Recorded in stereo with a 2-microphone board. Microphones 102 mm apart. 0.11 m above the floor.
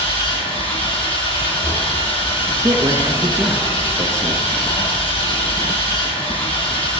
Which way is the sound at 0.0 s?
70° left (ahead or behind).